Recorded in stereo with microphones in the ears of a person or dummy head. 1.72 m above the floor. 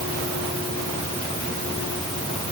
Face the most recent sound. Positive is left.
No sound to turn to.